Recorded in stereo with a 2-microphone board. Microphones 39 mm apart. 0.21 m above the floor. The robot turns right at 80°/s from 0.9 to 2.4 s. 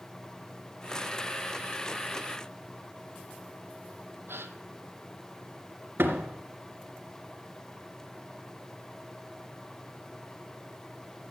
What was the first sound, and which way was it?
A gasp, 80° right.